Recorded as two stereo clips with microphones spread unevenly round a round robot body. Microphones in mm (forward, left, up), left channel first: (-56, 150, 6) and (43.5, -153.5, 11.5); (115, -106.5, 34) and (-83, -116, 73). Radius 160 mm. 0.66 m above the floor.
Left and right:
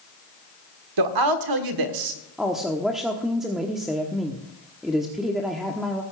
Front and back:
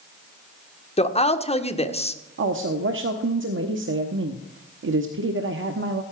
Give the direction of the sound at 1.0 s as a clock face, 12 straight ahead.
2 o'clock.